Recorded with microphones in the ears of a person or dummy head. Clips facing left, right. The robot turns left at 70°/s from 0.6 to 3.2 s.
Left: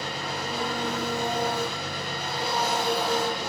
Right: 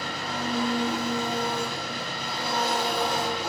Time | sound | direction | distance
0.0 | an engine running | 150° left | 3.5 m